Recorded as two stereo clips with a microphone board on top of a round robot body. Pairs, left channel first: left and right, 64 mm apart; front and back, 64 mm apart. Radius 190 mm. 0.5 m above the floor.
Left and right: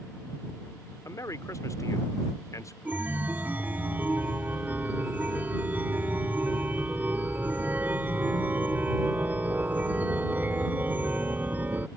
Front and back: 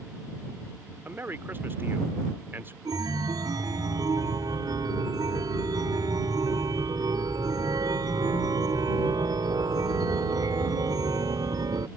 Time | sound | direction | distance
1.1 | a man speaking | 125° left | ?
2.9 | a chime | 155° right | ?